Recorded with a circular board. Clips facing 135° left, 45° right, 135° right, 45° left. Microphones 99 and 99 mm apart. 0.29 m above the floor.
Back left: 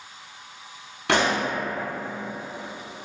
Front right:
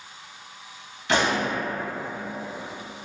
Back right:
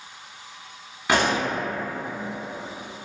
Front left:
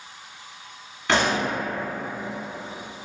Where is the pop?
145° left, 0.9 m.